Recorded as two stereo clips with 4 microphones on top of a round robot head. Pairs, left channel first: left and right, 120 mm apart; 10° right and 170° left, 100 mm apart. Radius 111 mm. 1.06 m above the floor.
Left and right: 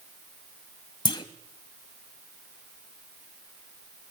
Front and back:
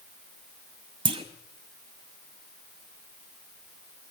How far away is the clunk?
About 0.9 m.